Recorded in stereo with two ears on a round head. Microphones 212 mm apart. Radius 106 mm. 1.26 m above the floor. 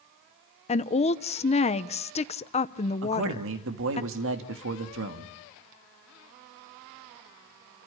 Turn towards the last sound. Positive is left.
turn(degrees=-55)  # may be behind; listen again after turning